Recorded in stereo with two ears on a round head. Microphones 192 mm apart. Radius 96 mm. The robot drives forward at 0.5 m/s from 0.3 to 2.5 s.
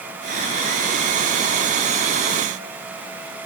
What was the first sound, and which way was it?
Only background noise.